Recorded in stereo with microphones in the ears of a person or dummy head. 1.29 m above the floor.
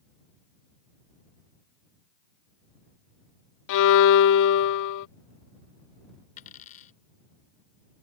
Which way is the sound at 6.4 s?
45° left (ahead or behind).